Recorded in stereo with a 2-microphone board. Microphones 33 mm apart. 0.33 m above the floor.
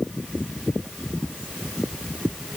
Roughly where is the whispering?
No whispering in this recording.